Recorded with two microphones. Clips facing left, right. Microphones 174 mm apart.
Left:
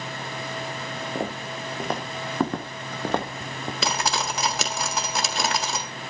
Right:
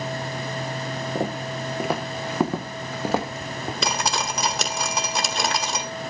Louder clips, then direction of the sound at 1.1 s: Right 3 dB; 5° right (ahead or behind).